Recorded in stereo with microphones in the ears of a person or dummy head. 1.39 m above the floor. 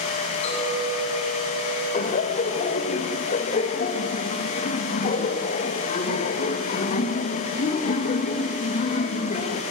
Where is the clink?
35° left (ahead or behind), 8 m.